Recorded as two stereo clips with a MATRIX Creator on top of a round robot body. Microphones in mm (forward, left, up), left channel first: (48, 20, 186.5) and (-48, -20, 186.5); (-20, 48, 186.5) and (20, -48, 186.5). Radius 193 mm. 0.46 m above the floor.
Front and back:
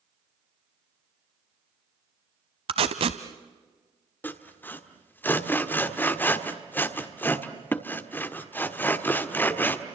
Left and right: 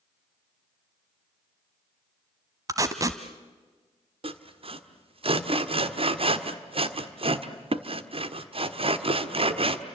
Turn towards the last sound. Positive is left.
turn(degrees=-50)